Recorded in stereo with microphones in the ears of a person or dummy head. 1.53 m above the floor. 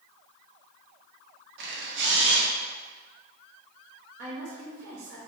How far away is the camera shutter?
About 0.8 m.